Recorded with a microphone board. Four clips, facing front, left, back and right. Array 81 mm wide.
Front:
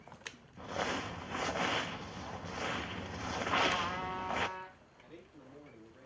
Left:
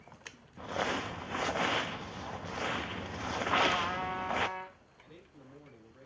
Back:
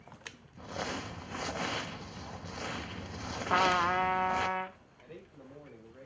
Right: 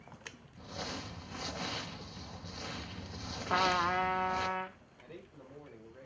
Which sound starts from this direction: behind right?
A man speaking, at 5.0 s.